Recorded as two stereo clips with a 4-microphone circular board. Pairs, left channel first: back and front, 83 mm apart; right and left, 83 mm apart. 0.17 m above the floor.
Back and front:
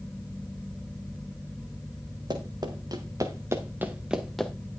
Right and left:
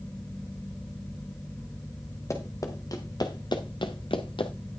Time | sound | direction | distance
2.3 | running footsteps | 35° right | 2.5 m